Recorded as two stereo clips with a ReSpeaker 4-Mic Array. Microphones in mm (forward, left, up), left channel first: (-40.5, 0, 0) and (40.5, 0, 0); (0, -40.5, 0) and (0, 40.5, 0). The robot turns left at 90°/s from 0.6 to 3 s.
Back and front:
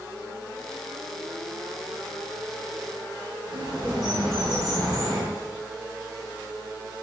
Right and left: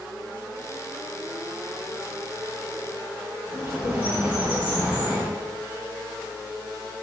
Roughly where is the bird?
Ahead.